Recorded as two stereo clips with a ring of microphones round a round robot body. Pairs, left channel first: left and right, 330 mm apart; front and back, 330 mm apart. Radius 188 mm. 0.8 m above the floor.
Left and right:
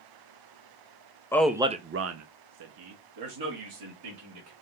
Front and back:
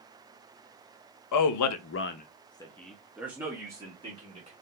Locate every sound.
1.3 s a man speaking: 10° left, 0.7 m; by 4.5 s 105° right, 2 m